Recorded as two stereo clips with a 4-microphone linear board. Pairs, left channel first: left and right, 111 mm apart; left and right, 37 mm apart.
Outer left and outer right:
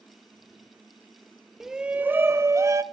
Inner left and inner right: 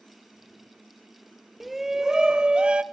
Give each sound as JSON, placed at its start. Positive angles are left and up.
{"t": 1.6, "sound": "a shout", "side_deg": -5, "distance_m": 0.8}